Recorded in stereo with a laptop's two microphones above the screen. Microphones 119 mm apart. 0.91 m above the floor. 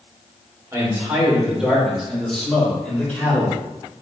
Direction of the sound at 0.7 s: 20° right (ahead or behind).